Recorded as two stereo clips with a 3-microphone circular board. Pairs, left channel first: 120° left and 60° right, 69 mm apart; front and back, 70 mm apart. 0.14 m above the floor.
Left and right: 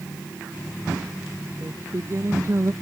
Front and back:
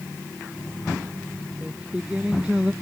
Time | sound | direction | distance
1.6 | singing | 105° right | ?